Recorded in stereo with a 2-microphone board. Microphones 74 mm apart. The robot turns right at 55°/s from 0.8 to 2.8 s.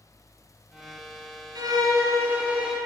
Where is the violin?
75° right, 1.9 m; by 2.8 s 5° right, 1.9 m.